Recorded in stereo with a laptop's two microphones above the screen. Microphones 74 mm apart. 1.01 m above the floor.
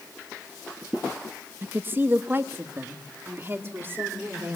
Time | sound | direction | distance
1.6 | a woman speaking | 30° right (ahead or behind) | 0.9 m